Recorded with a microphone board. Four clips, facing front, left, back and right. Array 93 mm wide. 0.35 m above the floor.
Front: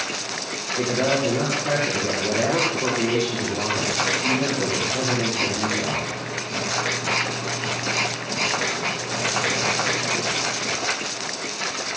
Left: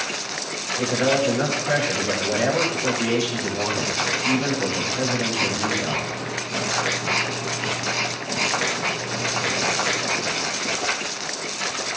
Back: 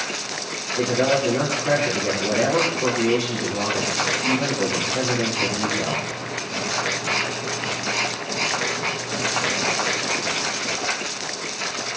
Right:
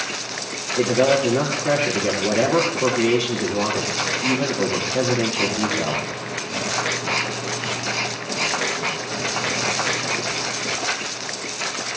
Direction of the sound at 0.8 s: 95° right.